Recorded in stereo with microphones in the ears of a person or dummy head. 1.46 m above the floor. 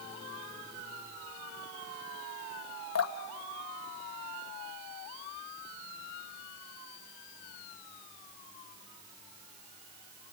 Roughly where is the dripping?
Left.